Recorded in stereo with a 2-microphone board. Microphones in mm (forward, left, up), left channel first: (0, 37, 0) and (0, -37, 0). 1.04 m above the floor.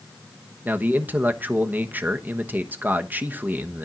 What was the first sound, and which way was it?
A man speaking, 25° right (ahead or behind).